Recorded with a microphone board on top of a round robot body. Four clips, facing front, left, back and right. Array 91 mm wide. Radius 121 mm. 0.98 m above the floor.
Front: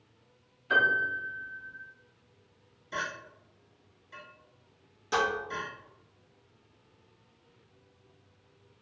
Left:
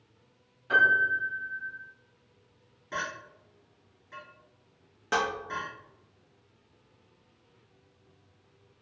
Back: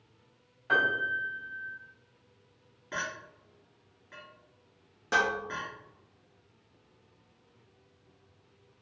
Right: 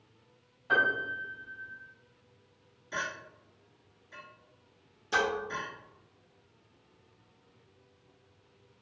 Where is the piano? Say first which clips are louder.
Left 5 dB, front 2 dB; 170° right, 1.5 m.